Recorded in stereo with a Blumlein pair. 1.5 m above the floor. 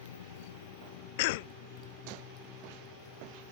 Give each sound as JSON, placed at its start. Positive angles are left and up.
{"t": 0.0, "sound": "a motorcycle", "azimuth_deg": 60}
{"t": 1.2, "sound": "a cough", "azimuth_deg": 50}